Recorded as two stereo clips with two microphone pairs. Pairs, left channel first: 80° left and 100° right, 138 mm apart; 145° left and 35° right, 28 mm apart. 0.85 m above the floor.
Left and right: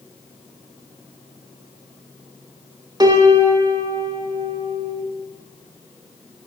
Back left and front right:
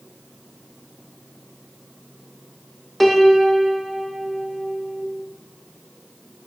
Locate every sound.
3.0 s a piano: 120° right, 0.5 m